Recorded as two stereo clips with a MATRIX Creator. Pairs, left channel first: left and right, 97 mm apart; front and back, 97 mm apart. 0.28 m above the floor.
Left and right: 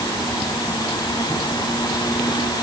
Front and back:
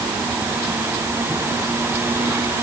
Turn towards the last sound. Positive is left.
No sound to turn to.